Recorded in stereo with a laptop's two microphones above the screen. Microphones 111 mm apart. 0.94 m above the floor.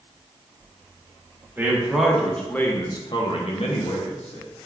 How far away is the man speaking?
About 1.0 m.